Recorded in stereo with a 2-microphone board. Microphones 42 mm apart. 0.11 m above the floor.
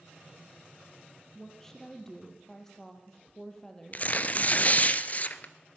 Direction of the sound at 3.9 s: 40° left (ahead or behind).